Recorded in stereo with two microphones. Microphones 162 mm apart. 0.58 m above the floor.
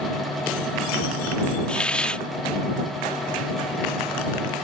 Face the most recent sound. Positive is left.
turn(degrees=5)  # may be behind; listen again after turning